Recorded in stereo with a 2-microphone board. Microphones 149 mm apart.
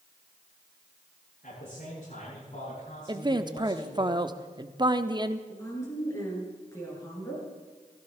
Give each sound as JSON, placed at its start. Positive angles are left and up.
{"t": 1.4, "sound": "a man speaking", "side_deg": 65, "distance_m": 8.5}
{"t": 3.1, "sound": "a man speaking", "side_deg": -30, "distance_m": 0.8}
{"t": 5.5, "sound": "a woman speaking", "side_deg": 20, "distance_m": 7.0}